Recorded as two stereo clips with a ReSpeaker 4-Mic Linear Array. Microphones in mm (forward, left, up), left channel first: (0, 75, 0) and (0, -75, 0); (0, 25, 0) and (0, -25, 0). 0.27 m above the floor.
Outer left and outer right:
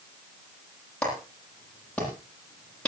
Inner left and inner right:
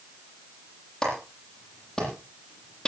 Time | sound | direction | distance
1.0 | a clap | 5° left (ahead or behind) | 9.5 m